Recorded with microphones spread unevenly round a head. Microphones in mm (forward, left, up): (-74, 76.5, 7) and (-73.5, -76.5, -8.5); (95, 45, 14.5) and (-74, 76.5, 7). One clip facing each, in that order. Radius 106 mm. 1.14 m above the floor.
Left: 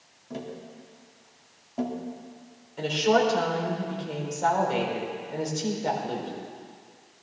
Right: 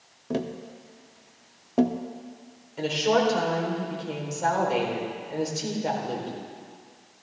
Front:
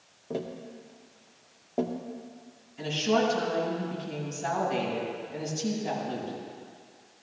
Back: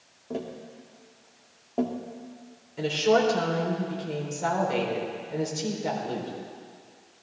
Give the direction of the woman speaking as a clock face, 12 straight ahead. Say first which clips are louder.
Left 1 dB, back 4 dB; 6 o'clock.